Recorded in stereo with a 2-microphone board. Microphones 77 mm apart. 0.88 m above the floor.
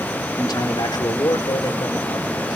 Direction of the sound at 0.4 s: 65° left (ahead or behind).